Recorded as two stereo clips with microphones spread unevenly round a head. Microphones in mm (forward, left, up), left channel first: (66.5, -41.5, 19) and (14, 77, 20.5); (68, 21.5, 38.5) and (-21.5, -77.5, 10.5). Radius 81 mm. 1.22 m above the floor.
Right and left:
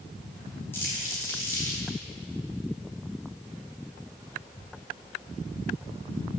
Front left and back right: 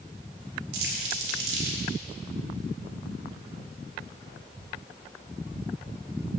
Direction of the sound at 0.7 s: 145° right.